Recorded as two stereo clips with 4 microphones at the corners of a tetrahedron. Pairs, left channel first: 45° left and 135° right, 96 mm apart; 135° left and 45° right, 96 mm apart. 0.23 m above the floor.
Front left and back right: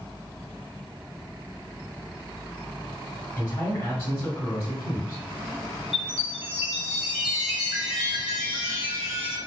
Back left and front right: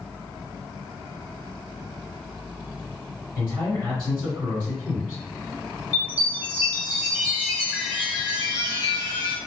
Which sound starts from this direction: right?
A chime, at 5.9 s.